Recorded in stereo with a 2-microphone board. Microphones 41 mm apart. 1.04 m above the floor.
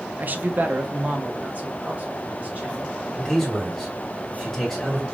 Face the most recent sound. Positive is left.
turn(degrees=0)  # may be behind; listen again after turning